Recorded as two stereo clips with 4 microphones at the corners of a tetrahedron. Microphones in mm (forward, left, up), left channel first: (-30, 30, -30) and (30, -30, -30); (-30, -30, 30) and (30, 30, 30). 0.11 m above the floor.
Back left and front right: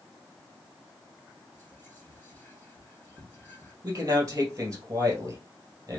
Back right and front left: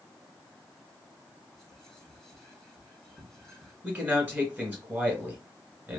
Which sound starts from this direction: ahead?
A man speaking, at 3.8 s.